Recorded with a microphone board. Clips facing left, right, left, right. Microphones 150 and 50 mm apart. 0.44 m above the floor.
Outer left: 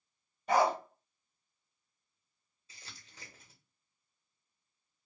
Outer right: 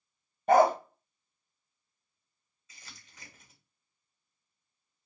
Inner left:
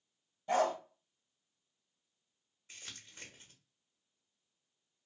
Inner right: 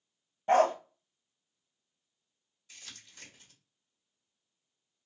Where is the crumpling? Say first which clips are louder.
Even, even; 30° left (ahead or behind), 1.5 m.